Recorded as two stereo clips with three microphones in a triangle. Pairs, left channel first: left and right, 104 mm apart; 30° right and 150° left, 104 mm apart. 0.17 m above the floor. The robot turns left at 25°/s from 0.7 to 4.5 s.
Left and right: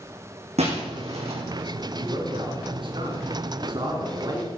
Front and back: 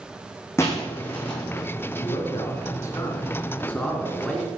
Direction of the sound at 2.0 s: 60° right.